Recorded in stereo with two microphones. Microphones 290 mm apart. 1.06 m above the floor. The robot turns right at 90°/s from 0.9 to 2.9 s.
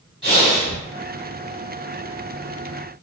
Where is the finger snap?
I don't hear a finger snap.